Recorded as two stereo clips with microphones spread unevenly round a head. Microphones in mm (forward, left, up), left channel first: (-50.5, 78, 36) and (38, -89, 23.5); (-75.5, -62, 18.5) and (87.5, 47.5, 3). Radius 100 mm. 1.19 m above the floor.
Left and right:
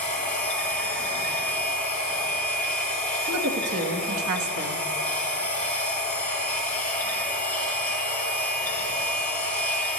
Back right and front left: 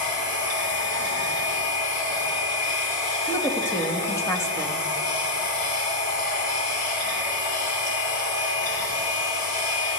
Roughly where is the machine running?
Behind.